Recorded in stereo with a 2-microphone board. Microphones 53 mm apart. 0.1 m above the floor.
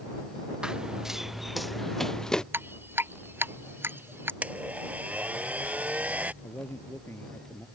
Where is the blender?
30° right (ahead or behind).